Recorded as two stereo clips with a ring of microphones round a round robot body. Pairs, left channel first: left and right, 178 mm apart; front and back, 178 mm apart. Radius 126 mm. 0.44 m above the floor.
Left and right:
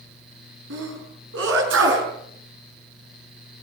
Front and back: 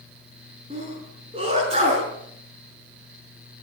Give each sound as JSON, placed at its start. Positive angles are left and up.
{"t": 0.7, "sound": "a sneeze", "azimuth_deg": -110, "distance_m": 6.5}